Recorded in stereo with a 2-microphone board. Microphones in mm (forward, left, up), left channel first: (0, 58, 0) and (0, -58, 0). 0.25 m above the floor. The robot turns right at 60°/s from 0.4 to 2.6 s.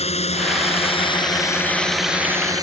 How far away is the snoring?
No snoring in this recording.